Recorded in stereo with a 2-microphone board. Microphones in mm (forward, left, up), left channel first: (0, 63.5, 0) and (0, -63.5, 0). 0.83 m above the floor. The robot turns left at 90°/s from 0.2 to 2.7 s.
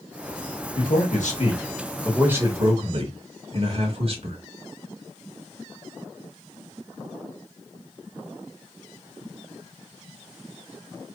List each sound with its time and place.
0.8 s a man speaking: 120° left, 1.3 m; by 4.4 s 55° right, 1.3 m